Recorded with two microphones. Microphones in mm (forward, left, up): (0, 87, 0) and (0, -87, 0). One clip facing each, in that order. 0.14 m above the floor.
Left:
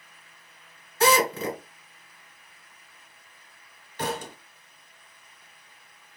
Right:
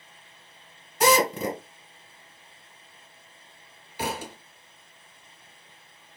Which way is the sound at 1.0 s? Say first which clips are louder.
Right 1 dB; 15° right (ahead or behind).